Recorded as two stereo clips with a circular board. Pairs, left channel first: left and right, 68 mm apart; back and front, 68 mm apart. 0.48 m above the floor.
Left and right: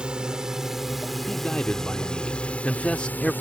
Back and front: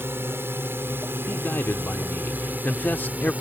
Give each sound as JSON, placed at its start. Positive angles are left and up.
{"t": 0.0, "sound": "a drone", "azimuth_deg": -20}
{"t": 1.3, "sound": "a man speaking", "azimuth_deg": 150}